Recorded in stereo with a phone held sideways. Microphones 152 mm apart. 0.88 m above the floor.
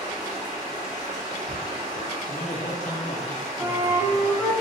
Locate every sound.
0.0 s running water: 40° right (ahead or behind), 1.9 m
2.3 s a man speaking: 65° left (ahead or behind), 1.2 m
3.6 s a flute: 10° right (ahead or behind), 0.6 m